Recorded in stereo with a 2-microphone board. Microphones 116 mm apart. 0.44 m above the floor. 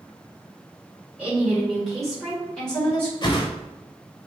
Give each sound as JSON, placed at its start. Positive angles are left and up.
{"t": 1.2, "sound": "a woman speaking", "side_deg": -10, "distance_m": 1.3}
{"t": 3.2, "sound": "a whoosh", "side_deg": 40, "distance_m": 0.6}